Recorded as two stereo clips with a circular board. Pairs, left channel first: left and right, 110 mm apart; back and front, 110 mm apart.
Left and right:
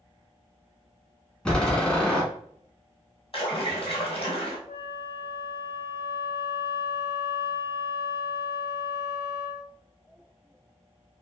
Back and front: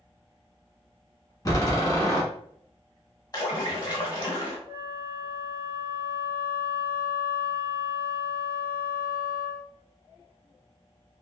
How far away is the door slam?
About 1.2 m.